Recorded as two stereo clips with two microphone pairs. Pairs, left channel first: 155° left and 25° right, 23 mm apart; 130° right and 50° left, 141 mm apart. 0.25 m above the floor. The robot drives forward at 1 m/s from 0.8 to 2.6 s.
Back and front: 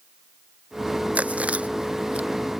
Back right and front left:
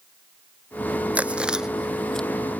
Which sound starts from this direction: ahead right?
Chewing, at 1.1 s.